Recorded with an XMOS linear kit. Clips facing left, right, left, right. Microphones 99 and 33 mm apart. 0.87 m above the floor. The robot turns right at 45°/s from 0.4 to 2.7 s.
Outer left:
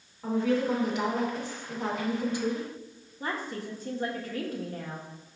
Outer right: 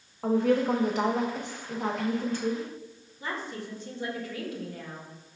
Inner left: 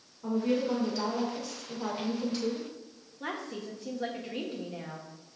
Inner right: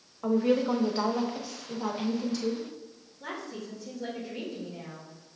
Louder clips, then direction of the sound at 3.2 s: Outer left 2 dB, inner left 1 dB; 45° left (ahead or behind).